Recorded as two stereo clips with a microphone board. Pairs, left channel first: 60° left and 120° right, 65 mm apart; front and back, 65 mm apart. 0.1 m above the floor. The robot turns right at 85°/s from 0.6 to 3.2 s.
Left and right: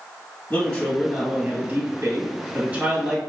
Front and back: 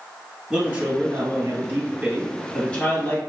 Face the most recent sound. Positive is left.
turn(degrees=-20)